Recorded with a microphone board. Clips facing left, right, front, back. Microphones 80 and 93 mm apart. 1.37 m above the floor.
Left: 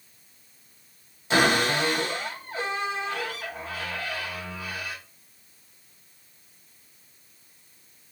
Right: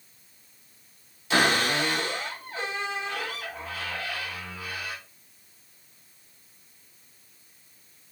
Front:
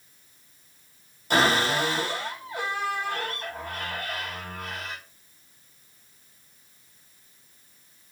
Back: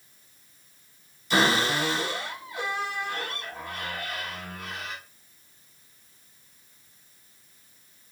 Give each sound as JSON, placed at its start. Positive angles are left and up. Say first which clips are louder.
{"t": 1.3, "sound": "a cupboard door", "louder": "left 2 dB, front 1 dB", "azimuth_deg": 30, "distance_m": 3.0}